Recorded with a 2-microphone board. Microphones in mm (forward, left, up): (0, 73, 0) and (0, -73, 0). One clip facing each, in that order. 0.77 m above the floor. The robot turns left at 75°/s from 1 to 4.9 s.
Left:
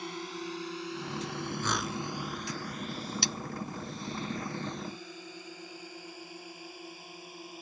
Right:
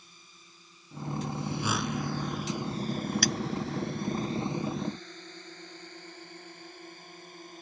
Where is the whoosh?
15° right (ahead or behind); by 2.0 s 15° left (ahead or behind).